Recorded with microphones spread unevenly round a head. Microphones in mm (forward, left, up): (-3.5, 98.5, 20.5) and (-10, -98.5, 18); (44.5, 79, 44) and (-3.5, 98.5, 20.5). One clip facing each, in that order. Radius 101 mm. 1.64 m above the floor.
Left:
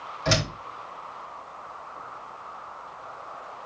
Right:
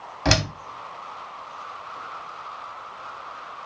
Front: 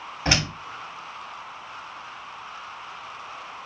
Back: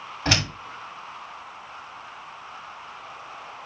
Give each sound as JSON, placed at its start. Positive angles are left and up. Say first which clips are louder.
{"t": 0.2, "sound": "a door slam", "louder": "right 3 dB, even", "azimuth_deg": -105, "distance_m": 3.0}